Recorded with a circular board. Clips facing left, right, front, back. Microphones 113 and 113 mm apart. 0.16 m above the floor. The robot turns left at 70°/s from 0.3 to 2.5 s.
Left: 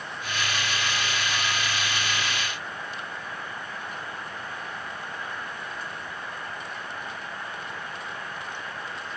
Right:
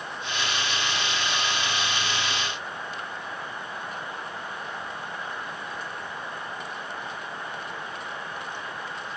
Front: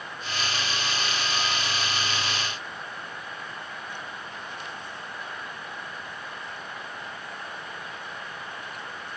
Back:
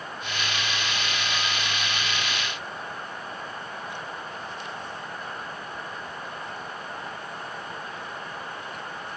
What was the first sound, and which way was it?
Only background noise.